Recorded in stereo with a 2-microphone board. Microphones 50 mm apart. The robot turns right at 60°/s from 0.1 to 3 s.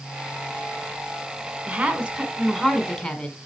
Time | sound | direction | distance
1.7 | a woman speaking | 60° right | 1.2 m